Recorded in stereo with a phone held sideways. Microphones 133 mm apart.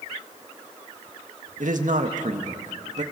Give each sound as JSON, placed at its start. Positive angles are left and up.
{"t": 1.6, "sound": "a man speaking", "side_deg": -75, "distance_m": 1.6}